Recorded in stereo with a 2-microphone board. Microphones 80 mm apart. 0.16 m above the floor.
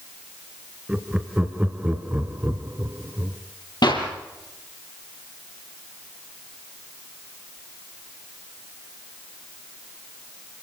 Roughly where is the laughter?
Centre.